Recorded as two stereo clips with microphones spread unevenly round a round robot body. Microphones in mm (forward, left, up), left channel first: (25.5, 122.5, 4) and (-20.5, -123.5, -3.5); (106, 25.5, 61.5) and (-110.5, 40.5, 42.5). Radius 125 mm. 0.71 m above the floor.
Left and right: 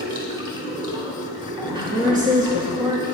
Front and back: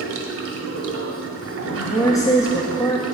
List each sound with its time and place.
0.0 s running water: 170° right, 1.5 m
1.7 s a woman speaking: 75° right, 1.0 m